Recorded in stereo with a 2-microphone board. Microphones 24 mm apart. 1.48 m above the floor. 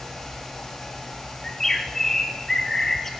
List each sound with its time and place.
1.4 s a bird: 15° left (ahead or behind), 4 m